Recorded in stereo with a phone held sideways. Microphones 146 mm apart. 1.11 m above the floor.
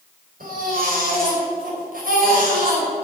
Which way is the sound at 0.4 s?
65° right (ahead or behind).